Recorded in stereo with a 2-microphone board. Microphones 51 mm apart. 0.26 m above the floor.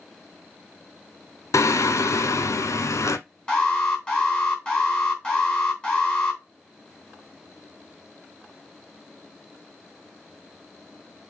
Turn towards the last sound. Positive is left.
turn(degrees=15)  # may be behind; listen again after turning